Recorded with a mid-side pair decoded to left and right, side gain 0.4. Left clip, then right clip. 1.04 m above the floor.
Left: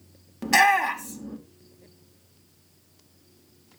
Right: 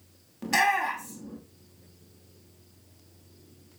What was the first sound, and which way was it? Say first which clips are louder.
A shout: left 5 dB; 45° left.